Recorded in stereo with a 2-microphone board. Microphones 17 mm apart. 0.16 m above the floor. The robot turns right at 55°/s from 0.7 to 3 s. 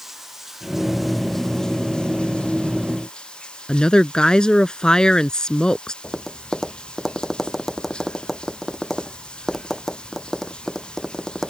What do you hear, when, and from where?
0.0 s running water: 25° right; by 11.5 s 105° left
3.7 s a woman speaking: 55° left (ahead or behind)
6.0 s tapping: 15° left (ahead or behind)